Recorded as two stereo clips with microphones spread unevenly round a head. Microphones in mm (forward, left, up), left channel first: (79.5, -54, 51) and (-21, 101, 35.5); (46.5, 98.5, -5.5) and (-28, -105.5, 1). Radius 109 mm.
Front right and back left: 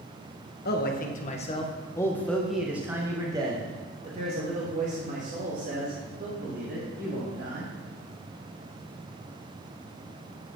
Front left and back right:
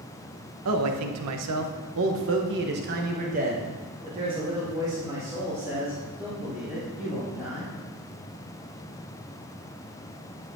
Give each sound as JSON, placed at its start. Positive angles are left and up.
{"t": 0.7, "sound": "a man speaking", "azimuth_deg": -95, "distance_m": 1.3}